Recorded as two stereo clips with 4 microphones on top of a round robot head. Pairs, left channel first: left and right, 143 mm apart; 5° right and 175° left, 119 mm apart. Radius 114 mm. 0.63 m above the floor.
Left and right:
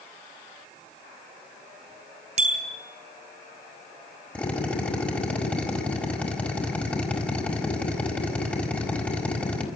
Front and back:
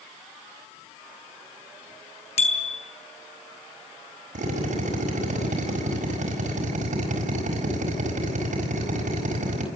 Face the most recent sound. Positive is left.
turn(degrees=170)